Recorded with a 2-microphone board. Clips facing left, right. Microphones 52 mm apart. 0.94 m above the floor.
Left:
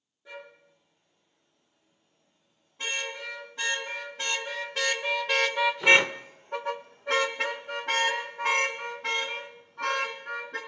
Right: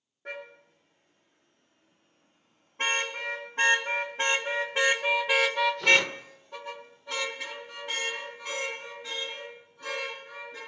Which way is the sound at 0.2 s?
55° right (ahead or behind).